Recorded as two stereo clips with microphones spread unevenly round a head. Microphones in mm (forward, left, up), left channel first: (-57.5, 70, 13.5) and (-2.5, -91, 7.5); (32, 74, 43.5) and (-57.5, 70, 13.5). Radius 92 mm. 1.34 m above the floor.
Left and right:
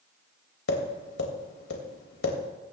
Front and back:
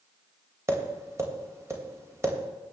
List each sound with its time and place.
0.7 s tapping: 115° left, 2.5 m